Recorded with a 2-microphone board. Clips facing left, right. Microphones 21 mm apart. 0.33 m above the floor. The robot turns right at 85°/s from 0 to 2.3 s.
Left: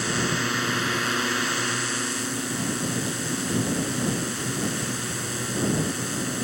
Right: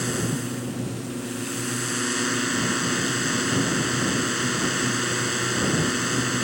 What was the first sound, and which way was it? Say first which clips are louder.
A drone: left 2 dB; 10° left.